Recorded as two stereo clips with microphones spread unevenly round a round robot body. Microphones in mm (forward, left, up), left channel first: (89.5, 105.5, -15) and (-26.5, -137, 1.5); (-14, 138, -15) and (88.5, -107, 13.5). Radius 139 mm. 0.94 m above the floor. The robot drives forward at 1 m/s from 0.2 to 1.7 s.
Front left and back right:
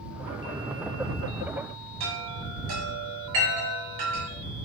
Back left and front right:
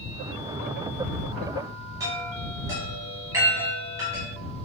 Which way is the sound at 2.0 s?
145° right.